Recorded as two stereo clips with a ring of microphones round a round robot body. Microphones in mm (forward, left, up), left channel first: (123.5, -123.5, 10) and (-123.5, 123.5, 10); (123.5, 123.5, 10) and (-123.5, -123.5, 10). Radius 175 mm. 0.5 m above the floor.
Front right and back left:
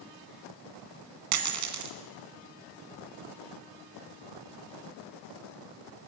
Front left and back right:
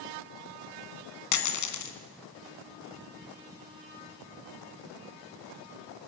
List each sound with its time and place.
1.3 s a dropped coin: 90° left, 2 m